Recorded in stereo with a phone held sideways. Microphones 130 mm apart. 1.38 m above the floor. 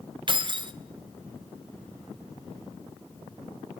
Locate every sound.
0.3 s keys jangling: 40° right (ahead or behind), 0.5 m